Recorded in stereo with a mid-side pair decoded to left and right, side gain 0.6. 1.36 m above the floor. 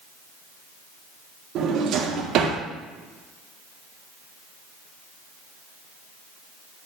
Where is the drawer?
60° right, 2 m.